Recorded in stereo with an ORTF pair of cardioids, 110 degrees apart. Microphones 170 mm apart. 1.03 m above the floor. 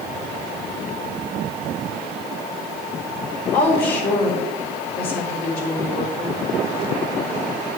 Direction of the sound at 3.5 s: 65° left.